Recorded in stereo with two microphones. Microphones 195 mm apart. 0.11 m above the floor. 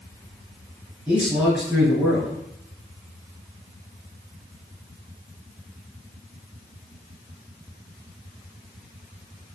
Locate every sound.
1.1 s a man speaking: 5° right (ahead or behind), 1.4 m